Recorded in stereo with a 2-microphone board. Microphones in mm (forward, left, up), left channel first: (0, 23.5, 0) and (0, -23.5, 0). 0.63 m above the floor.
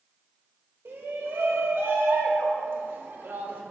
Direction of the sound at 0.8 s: 70° right (ahead or behind).